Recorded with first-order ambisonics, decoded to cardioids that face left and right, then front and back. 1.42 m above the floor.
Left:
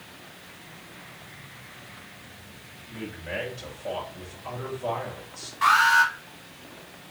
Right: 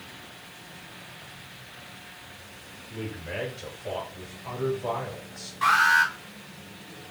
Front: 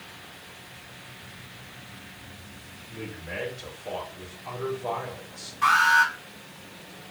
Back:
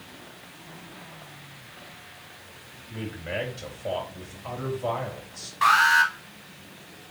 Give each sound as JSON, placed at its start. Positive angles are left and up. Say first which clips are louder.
{"t": 2.9, "sound": "a man speaking", "louder": "left 1 dB, back 3 dB", "azimuth_deg": 170, "distance_m": 3.0}
{"t": 5.6, "sound": "an alarm", "louder": "left 1 dB, back 1 dB", "azimuth_deg": 175, "distance_m": 2.5}